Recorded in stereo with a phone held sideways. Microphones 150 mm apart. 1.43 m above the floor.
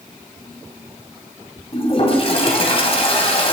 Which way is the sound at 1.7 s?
40° left (ahead or behind).